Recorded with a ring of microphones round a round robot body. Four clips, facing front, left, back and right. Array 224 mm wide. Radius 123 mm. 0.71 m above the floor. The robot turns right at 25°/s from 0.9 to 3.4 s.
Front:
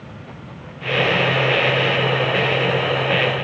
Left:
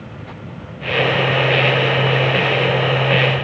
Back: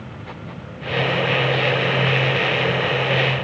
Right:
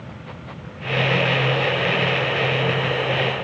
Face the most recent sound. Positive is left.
No sound to turn to.